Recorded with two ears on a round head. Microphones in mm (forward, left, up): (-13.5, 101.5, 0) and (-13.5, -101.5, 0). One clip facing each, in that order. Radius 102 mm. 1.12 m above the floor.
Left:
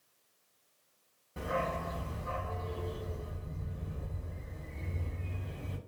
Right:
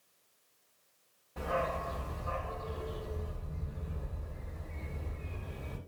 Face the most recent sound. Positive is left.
turn(degrees=20)  # may be behind; listen again after turning